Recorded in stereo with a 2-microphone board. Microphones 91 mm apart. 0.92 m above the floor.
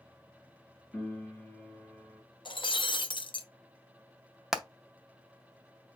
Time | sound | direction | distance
0.9 | a piano | 15° left (ahead or behind) | 2.5 m
2.5 | breaking glass | 65° left (ahead or behind) | 0.6 m
4.5 | hammering | 5° right (ahead or behind) | 0.8 m